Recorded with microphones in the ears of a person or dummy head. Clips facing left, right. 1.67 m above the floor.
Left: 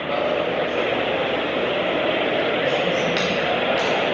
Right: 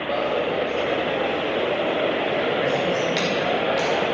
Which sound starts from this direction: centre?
A dropped coin, at 0.1 s.